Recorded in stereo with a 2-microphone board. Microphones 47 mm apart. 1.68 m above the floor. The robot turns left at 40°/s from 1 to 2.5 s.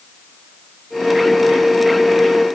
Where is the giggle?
I don't hear a giggle.